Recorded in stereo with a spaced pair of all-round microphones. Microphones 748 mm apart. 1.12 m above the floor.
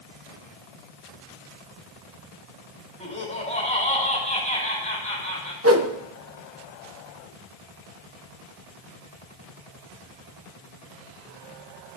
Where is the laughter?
10° left (ahead or behind), 5.5 m.